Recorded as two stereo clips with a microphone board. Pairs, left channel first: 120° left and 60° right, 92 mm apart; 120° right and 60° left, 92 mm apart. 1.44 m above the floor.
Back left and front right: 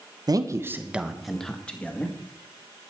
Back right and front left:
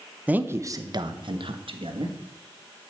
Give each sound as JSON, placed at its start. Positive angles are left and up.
{"t": 0.3, "sound": "a man speaking", "azimuth_deg": -15, "distance_m": 1.1}